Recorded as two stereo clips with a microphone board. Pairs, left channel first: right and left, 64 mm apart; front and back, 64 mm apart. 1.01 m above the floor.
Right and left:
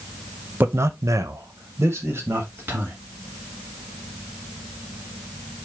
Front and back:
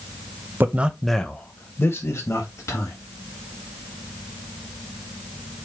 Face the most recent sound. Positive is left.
turn(degrees=35)